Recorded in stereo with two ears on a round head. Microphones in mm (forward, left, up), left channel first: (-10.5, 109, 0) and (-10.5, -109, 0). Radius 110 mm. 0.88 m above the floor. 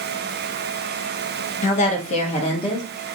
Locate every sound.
1.6 s a woman speaking: 30° left (ahead or behind), 0.7 m; by 2.9 s 15° left (ahead or behind), 0.8 m